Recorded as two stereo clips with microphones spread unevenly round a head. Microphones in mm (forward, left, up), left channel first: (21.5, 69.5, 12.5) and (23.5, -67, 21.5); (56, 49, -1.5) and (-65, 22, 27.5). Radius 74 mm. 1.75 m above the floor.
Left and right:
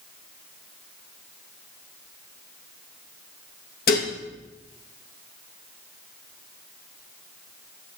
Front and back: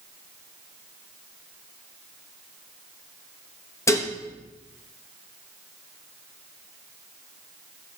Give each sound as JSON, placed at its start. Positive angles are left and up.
{"t": 3.9, "sound": "dishes clattering", "azimuth_deg": 85, "distance_m": 1.6}